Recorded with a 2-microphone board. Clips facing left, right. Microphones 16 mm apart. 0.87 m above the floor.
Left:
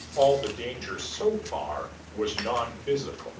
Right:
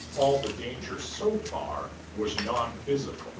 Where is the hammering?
I don't hear hammering.